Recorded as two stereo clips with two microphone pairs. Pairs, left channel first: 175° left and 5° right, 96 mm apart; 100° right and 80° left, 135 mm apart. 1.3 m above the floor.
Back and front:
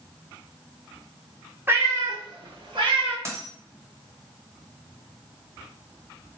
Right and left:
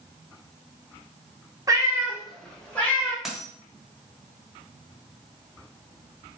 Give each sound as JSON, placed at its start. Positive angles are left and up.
{"t": 1.7, "sound": "a cat meowing", "azimuth_deg": 45, "distance_m": 1.0}
{"t": 3.2, "sound": "a dropped coin", "azimuth_deg": -5, "distance_m": 1.1}